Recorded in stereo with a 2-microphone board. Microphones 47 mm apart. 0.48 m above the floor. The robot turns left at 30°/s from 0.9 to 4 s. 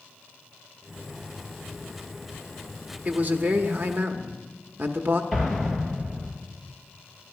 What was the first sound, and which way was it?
A man speaking, 35° right (ahead or behind).